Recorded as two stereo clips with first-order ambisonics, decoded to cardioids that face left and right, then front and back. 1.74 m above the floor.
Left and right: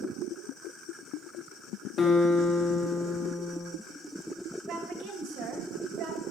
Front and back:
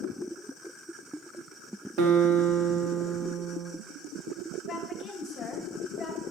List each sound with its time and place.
2.0 s a guitar: 165° left, 1.7 m
4.7 s a woman speaking: 65° right, 2 m